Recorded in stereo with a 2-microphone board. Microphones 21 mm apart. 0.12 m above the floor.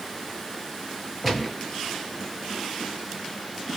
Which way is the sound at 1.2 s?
5° left (ahead or behind).